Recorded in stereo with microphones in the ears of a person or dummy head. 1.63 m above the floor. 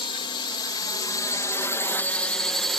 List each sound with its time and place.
0.0 s a drone: 30° left (ahead or behind); by 2.8 s centre (ahead or behind)